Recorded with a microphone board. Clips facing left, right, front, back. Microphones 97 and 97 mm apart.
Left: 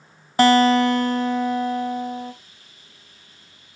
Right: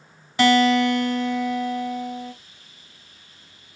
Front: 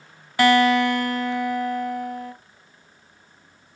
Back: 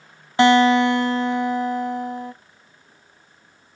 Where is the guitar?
120° left, 0.6 m.